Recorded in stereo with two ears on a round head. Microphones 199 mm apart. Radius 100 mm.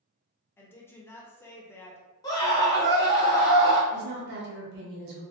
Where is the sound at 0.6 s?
10° left (ahead or behind), 0.6 m.